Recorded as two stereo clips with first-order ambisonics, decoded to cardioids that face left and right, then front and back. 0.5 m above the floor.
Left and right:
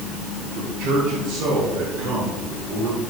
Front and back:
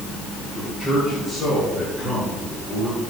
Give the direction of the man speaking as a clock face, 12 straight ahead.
2 o'clock.